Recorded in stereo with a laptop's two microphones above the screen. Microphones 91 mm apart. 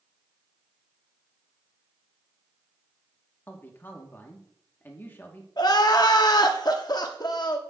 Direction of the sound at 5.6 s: 45° left (ahead or behind).